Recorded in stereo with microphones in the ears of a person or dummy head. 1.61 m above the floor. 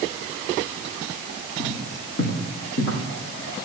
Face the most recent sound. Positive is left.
turn(degrees=65)  # may be behind; listen again after turning